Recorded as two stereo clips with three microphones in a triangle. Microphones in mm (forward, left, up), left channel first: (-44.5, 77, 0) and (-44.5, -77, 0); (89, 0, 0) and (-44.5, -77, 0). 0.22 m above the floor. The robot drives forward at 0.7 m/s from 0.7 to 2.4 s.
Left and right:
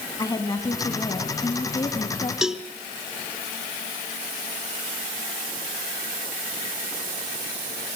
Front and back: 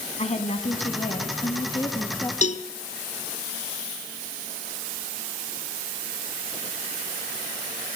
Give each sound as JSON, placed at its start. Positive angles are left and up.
{"t": 0.2, "sound": "a woman speaking", "azimuth_deg": 35, "distance_m": 2.0}
{"t": 2.4, "sound": "a cowbell", "azimuth_deg": -5, "distance_m": 0.8}